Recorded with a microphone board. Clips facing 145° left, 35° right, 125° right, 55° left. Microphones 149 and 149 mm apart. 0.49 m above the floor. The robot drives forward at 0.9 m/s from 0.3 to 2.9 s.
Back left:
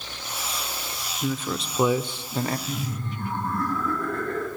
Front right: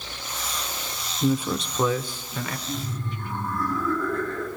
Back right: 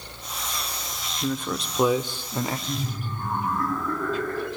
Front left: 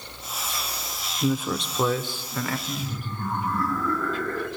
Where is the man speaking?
Straight ahead, 0.8 m; by 2.6 s straight behind, 1.1 m.